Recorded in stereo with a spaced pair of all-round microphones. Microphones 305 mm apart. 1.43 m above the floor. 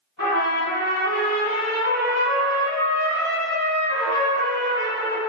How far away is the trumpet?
About 1.5 m.